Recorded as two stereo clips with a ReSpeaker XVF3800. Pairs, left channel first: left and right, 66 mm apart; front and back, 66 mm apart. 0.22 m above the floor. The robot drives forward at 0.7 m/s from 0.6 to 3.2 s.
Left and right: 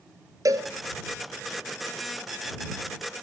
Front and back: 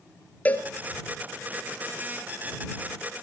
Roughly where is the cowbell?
Ahead right.